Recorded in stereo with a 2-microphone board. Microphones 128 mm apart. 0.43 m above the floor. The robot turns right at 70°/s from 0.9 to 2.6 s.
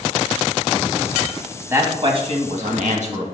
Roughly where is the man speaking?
Behind.